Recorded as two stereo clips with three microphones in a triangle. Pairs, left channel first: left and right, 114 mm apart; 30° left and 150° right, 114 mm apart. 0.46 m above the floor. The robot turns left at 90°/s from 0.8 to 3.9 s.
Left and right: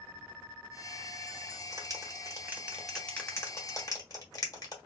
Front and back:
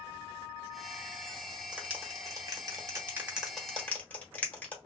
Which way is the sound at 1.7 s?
75° right.